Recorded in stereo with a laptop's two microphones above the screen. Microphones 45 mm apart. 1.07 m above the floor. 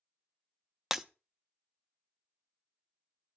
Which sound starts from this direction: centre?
Breaking glass, at 0.9 s.